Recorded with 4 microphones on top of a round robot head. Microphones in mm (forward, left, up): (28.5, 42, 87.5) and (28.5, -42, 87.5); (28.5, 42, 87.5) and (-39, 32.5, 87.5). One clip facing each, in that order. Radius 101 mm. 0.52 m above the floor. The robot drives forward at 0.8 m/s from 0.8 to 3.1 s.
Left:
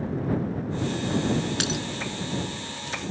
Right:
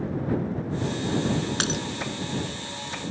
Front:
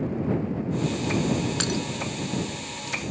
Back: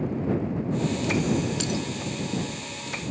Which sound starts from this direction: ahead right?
Breaking glass, at 1.6 s.